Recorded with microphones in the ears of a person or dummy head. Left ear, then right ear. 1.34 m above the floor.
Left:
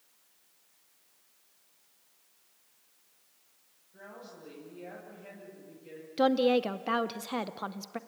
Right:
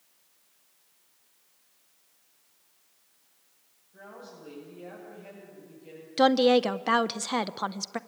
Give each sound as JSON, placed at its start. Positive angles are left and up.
{"t": 3.9, "sound": "a woman speaking", "side_deg": -5, "distance_m": 7.5}
{"t": 6.2, "sound": "a woman speaking", "side_deg": -20, "distance_m": 0.5}